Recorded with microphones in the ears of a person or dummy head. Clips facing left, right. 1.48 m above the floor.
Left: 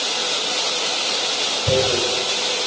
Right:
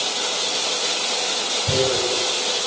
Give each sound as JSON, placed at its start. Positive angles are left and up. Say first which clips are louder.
{"t": 1.7, "sound": "tearing paper", "louder": "left 2 dB", "side_deg": 45, "distance_m": 3.5}